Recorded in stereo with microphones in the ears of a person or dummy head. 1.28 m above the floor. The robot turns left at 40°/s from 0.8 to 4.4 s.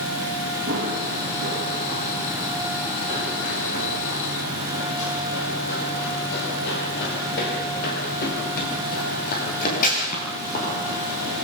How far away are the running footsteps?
About 5 m.